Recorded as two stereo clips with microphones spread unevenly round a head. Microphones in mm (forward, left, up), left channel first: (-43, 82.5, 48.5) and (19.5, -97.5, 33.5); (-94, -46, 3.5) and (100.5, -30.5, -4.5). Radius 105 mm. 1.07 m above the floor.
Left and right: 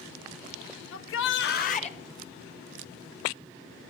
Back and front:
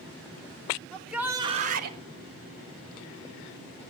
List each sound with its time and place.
0.9 s a shout: 100° left, 1.5 m; by 2.0 s 45° left, 1.4 m